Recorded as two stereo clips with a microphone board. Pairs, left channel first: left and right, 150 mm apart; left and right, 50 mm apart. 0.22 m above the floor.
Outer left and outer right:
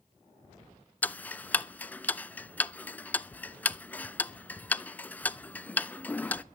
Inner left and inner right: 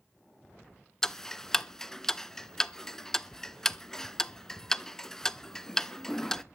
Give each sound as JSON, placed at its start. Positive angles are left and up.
{"t": 1.0, "sound": "ticking", "side_deg": 10, "distance_m": 0.6}